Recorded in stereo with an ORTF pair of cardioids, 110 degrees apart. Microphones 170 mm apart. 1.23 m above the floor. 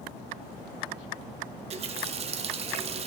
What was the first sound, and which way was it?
A running tap, 40° right.